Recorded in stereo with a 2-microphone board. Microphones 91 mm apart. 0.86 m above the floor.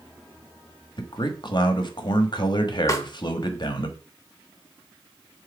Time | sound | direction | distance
1.0 | a man speaking | 50° left (ahead or behind) | 1.2 m
2.9 | a snare drum | 35° left (ahead or behind) | 1.3 m